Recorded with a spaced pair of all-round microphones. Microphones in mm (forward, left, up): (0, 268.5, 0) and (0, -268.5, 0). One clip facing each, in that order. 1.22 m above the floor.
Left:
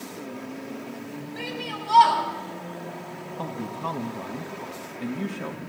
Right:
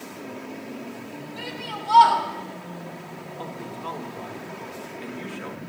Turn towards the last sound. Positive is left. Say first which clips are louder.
# left 3 dB
turn(degrees=65)  # may be behind; listen again after turning